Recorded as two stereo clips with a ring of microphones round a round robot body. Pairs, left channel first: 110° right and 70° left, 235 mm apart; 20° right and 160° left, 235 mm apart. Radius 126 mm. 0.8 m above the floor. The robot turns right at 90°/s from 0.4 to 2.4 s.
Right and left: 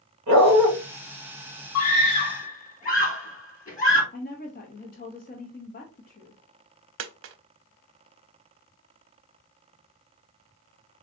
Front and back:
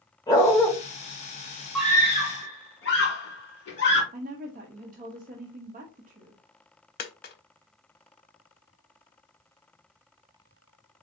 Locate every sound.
0.3 s a dog barking: 50° left, 1.9 m; by 0.7 s 80° left, 1.9 m
1.8 s a scream: 120° right, 2 m; by 4.0 s 60° right, 2 m
4.1 s a woman speaking: 155° right, 0.8 m
7.0 s a dropped coin: 30° left, 0.5 m